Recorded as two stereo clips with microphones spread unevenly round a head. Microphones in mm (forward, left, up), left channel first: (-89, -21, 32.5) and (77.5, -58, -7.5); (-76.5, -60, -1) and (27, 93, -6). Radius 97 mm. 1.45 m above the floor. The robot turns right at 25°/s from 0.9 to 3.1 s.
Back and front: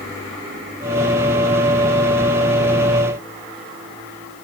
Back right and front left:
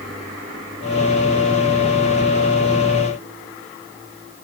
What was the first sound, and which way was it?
Only background noise.